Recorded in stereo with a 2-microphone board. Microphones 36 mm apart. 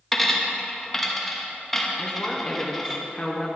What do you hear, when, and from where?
0.1 s a dropped coin: 5° left (ahead or behind), 1.0 m
2.0 s a woman speaking: 20° left (ahead or behind), 1.1 m